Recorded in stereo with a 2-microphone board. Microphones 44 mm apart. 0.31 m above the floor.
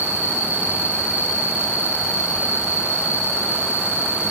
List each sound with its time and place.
0.0 s an insect: 50° right (ahead or behind), 0.8 m